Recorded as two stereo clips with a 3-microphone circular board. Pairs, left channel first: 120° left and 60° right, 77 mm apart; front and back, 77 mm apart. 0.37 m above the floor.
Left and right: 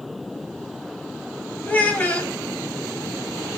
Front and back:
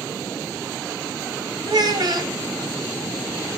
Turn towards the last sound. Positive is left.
turn(degrees=-170)